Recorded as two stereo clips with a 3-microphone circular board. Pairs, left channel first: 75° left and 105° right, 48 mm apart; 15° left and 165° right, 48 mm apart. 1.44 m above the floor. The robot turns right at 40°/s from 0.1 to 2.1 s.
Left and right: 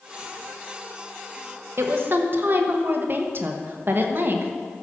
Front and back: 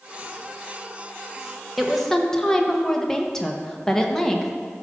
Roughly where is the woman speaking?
Right.